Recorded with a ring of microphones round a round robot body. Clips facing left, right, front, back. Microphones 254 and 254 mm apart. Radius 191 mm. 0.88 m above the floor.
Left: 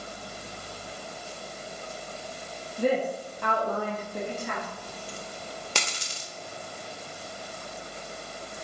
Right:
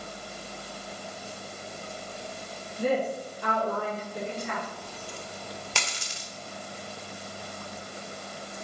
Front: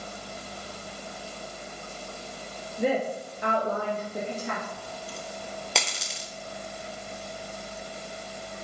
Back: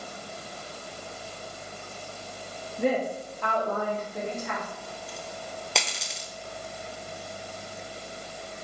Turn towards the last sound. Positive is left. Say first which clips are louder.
# left 1 dB, front 1 dB
turn(degrees=90)